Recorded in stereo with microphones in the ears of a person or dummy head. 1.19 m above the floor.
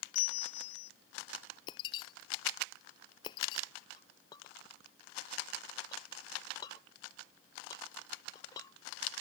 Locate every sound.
0.1 s a bell: 85° left
1.7 s breaking glass: 30° left (ahead or behind)
4.0 s a clink: 25° left (ahead or behind)